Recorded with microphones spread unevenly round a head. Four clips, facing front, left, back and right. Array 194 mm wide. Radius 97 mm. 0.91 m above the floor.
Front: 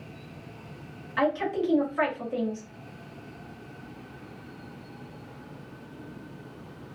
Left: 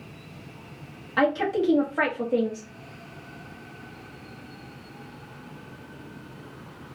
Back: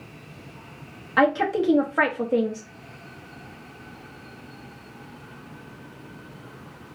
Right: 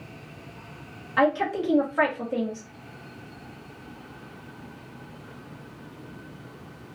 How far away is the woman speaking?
About 0.9 m.